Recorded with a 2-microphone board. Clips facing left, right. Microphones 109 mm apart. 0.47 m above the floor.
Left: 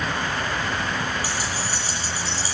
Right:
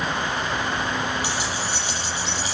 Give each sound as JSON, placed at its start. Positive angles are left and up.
{"t": 1.2, "sound": "keys jangling", "side_deg": 40, "distance_m": 8.5}